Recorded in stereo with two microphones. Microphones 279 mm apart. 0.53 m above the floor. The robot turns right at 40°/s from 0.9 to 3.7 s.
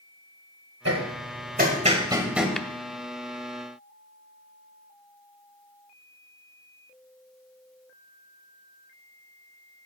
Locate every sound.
0.8 s hammering: 60° right (ahead or behind), 1.7 m; by 2.5 s centre (ahead or behind), 1.7 m
2.6 s tapping: centre (ahead or behind), 0.7 m; by 2.7 s 5° left (ahead or behind), 0.7 m